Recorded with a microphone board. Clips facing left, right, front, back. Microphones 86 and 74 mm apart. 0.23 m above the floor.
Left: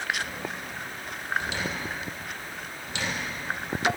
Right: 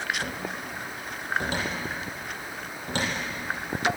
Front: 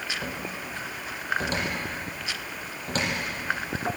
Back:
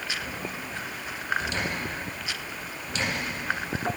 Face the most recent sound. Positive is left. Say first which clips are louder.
# right 1 dB, front 1 dB
turn(degrees=-45)